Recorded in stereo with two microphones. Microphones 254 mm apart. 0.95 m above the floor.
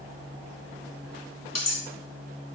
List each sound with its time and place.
1.6 s cutlery clinking: 80° left, 0.8 m